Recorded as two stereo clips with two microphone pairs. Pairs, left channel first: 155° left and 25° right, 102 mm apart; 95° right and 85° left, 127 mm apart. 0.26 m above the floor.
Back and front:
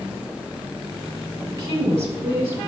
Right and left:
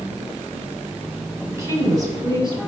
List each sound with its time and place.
1.5 s a woman speaking: 20° left, 1.5 m; by 2.6 s 40° left, 2 m